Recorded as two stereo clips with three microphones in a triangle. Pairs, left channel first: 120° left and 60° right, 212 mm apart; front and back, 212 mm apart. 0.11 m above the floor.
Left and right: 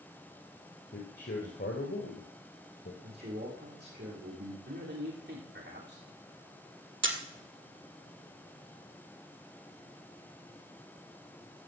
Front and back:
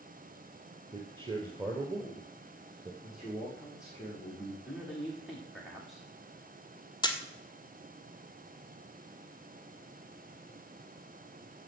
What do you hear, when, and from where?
0.9 s a man speaking: 120° left, 1.9 m
3.0 s a man speaking: 95° right, 5 m
4.7 s a man speaking: 90° right, 5.5 m
7.0 s a camera shutter: 70° right, 1.7 m